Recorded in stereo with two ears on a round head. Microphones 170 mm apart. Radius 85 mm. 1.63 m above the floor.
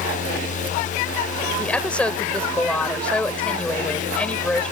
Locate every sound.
1.6 s a woman speaking: 5° left (ahead or behind)